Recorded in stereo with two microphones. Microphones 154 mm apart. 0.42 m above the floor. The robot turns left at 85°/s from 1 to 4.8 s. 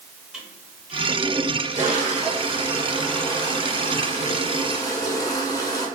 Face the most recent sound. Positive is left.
turn(degrees=30)